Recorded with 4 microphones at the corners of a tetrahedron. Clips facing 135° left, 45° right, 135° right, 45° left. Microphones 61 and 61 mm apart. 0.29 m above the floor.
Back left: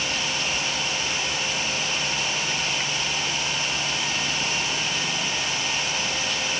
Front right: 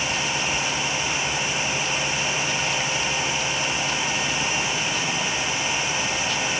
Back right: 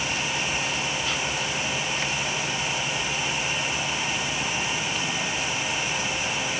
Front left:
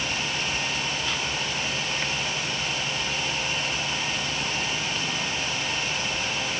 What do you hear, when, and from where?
Only background noise.